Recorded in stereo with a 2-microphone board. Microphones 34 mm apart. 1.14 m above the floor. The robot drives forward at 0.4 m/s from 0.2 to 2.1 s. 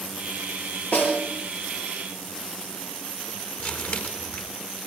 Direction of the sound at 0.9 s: 60° left (ahead or behind).